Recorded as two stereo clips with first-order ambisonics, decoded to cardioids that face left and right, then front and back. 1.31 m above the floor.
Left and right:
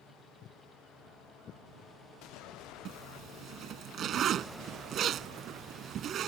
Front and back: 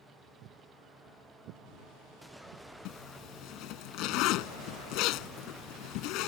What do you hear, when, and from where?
0.4 s footsteps: 140° left; by 2.6 s 150° left
2.9 s a zipper: 35° right